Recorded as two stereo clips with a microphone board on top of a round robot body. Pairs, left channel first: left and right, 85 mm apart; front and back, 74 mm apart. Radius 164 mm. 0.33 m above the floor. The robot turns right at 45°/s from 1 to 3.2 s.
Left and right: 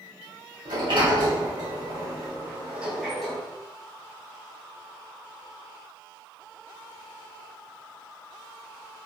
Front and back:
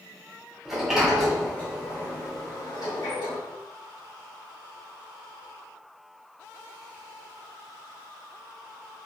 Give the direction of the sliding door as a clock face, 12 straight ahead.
3 o'clock.